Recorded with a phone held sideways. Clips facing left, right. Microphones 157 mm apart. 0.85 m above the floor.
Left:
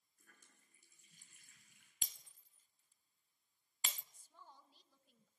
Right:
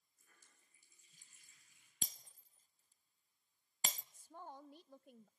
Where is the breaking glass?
35° right (ahead or behind), 0.6 m.